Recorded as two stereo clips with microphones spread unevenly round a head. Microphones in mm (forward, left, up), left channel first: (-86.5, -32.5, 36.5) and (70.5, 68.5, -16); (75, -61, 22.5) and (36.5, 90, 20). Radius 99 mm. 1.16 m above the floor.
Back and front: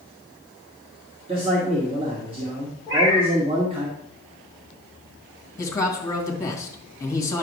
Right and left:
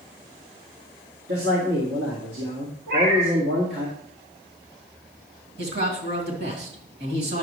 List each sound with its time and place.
1.3 s a man speaking: 95° left, 2.0 m
2.9 s a cat meowing: 105° left, 3.5 m
5.6 s a man speaking: 135° left, 2.5 m